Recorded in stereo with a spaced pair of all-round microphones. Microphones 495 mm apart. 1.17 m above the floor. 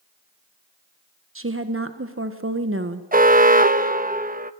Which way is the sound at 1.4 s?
25° right (ahead or behind).